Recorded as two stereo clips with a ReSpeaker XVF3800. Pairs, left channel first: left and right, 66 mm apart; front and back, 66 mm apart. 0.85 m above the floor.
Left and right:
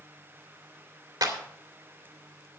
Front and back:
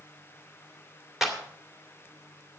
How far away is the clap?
About 2 m.